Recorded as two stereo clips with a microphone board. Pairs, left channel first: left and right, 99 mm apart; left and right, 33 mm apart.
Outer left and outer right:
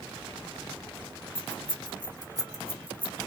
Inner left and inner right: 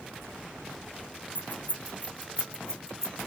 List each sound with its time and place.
1.4 s keys jangling: 65° left (ahead or behind), 1.1 m; by 3.3 s 5° left (ahead or behind), 0.9 m